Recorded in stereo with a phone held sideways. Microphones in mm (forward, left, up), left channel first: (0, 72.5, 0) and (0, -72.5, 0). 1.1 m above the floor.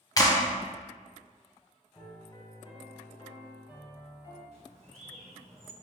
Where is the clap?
25° left (ahead or behind), 0.6 m.